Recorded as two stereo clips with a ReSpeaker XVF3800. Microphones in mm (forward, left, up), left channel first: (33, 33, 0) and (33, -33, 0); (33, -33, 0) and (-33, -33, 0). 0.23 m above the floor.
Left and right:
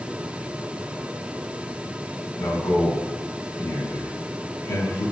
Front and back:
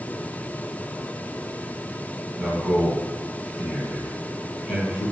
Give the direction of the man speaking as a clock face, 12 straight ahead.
9 o'clock.